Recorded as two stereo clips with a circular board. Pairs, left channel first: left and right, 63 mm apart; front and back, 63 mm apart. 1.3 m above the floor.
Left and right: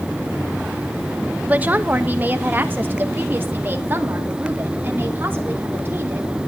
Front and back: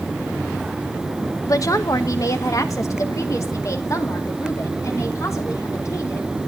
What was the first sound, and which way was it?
A woman speaking, 25° right.